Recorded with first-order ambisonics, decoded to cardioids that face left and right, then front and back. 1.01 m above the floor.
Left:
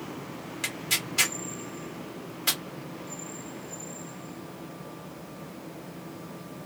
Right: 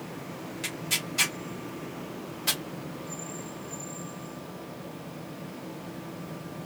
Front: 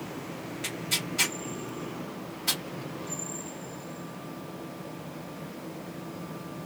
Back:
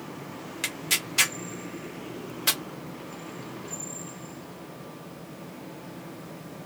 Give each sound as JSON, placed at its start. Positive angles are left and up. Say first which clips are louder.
{"t": 0.6, "sound": "tearing paper", "louder": "left 2 dB, back 3 dB", "azimuth_deg": 165, "distance_m": 1.7}